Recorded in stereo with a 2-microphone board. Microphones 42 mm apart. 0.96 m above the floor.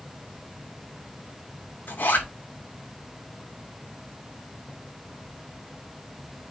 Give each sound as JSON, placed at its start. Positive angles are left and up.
{"t": 1.9, "sound": "a zipper", "side_deg": 45, "distance_m": 4.5}